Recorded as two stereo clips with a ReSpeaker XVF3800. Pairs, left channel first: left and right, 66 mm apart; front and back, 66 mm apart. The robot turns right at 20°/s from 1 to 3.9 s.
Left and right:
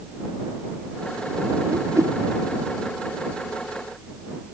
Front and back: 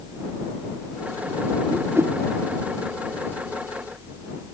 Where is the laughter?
I don't hear laughter.